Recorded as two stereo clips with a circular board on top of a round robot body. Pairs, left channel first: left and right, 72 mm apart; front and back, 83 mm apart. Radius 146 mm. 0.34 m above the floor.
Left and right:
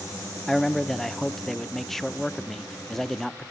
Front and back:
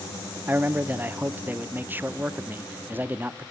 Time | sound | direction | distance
0.5 | a man speaking | 170° left | 0.8 m